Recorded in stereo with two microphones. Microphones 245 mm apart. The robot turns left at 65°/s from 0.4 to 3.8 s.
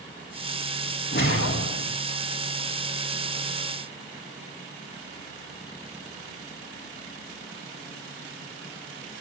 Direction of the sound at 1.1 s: 130° left.